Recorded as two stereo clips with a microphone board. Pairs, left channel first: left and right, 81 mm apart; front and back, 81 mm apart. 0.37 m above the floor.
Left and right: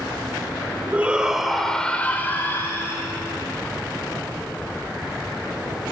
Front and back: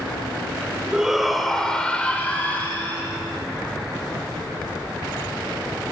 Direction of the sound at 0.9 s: 115° right.